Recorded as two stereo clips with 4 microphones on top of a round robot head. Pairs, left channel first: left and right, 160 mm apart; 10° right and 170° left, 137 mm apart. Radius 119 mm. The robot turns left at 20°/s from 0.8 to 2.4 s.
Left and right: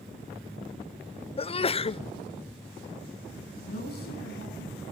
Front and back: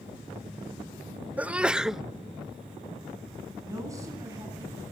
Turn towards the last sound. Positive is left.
turn(degrees=105)